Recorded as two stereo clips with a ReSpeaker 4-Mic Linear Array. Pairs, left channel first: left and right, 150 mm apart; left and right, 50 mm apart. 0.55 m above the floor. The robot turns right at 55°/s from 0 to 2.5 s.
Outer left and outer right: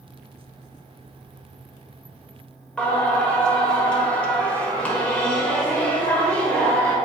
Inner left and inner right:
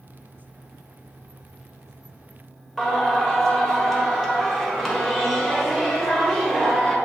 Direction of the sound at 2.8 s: 10° left (ahead or behind).